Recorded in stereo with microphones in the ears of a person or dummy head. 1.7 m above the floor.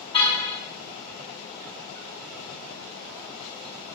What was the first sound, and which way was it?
A car horn, 30° left (ahead or behind).